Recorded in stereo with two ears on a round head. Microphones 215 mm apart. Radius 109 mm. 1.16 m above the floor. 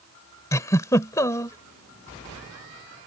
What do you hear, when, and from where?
0.5 s a giggle: 15° left (ahead or behind)